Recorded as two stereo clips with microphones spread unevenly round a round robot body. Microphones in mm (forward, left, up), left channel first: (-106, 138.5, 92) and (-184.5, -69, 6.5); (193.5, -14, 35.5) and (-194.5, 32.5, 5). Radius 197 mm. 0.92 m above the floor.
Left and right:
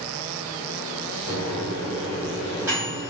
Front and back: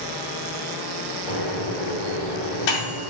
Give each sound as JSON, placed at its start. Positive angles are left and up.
{"t": 1.3, "sound": "a microwave", "azimuth_deg": -35, "distance_m": 1.2}